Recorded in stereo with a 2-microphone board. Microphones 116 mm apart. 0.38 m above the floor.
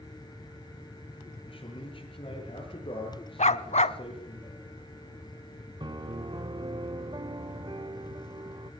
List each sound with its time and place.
1.5 s a man speaking: 50° left (ahead or behind), 8 m
3.4 s a dog barking: 90° left, 0.8 m
5.8 s a piano: 40° right (ahead or behind), 0.5 m